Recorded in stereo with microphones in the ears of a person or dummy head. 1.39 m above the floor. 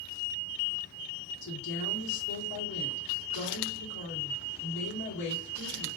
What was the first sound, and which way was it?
A woman speaking, 70° left (ahead or behind).